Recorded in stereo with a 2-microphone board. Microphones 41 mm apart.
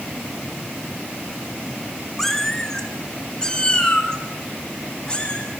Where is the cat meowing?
5° left (ahead or behind), 2 m; by 5.5 s 25° left (ahead or behind), 5.5 m.